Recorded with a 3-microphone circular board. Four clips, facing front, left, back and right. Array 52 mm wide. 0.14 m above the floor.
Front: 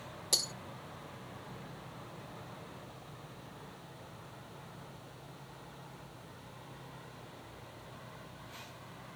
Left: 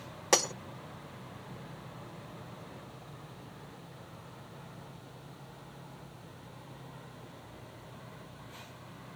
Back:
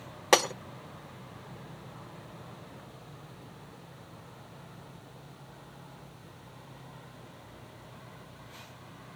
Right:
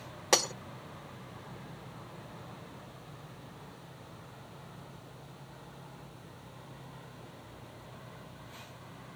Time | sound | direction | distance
0.3 | breaking glass | straight behind | ?